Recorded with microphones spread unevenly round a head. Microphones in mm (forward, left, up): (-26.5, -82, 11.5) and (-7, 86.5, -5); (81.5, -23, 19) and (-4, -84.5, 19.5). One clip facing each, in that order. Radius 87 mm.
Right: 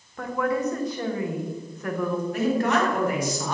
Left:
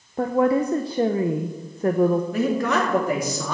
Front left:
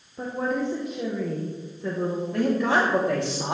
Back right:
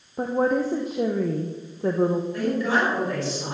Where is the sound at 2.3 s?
90° left, 3.5 m.